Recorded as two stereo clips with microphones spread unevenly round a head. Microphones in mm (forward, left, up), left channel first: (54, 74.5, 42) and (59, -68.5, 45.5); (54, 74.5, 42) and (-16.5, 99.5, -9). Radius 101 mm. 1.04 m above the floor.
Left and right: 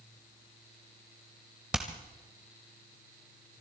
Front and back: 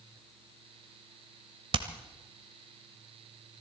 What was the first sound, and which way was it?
Hammering, 165° right.